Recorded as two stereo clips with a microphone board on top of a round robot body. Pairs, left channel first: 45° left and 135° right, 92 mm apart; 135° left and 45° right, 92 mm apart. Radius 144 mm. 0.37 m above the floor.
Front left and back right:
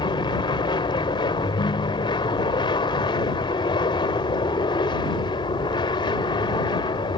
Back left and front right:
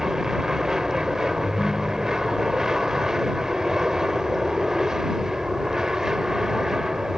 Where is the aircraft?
35° left.